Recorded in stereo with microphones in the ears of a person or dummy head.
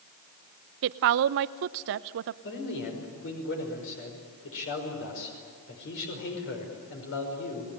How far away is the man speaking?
About 5.5 m.